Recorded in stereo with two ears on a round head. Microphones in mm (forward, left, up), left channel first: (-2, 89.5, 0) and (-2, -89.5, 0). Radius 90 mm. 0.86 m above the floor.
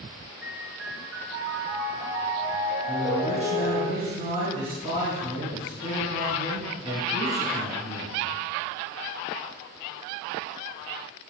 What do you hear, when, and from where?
0.4 s a piano: 75° right (ahead or behind), 4 m
2.9 s a man speaking: 35° right (ahead or behind), 4.5 m